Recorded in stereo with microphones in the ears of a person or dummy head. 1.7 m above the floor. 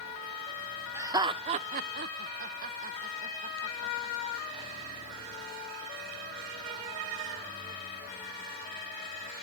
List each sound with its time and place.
0.9 s laughter: 15° right (ahead or behind); by 4.7 s 30° right (ahead or behind)